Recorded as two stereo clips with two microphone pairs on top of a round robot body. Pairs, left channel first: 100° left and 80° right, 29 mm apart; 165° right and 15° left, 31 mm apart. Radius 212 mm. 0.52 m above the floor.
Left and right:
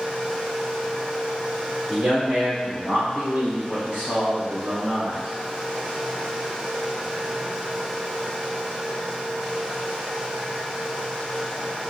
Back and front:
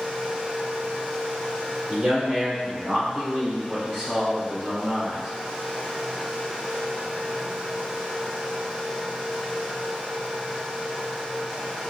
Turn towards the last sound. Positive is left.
turn(degrees=-30)